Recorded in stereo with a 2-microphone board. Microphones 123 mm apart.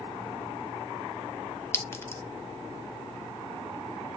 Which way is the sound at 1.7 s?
20° left (ahead or behind).